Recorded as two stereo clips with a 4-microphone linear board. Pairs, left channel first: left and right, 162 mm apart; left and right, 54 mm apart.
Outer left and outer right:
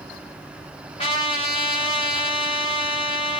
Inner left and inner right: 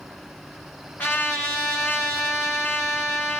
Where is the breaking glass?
No breaking glass in this recording.